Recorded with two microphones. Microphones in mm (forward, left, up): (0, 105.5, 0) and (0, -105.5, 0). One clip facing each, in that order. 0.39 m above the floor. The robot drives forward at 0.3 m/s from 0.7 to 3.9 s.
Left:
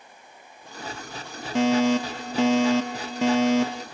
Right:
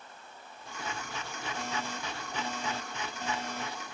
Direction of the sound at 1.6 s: 80° left.